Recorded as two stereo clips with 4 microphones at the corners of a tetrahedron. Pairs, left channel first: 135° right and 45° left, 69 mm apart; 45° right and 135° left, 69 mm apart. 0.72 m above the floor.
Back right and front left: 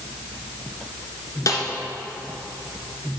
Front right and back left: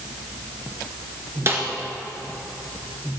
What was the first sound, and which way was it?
A snare drum, 170° right.